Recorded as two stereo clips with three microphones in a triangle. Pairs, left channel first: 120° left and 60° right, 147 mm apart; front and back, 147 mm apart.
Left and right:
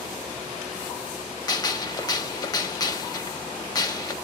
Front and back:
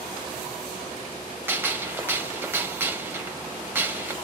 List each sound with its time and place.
1.5 s a gunshot: 125° left, 0.6 m